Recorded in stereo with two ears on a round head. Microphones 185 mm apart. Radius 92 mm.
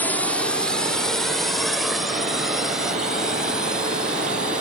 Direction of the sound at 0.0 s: 10° left (ahead or behind).